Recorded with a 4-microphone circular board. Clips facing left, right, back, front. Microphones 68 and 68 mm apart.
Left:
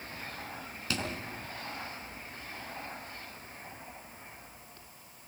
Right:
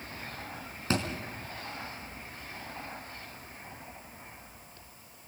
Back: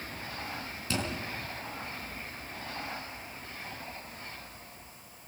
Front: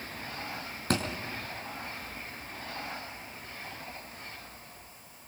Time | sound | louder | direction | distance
0.9 | a thud | right 5 dB, front 4 dB | 35° right | 4.5 m